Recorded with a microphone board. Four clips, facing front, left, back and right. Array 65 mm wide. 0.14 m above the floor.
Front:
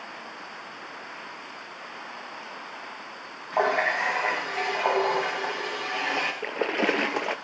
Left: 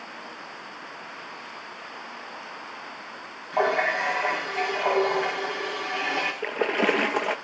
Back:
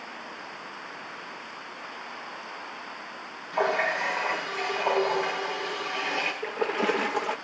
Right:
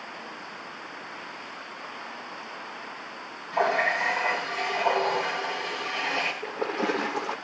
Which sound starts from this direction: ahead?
A running tap, at 3.5 s.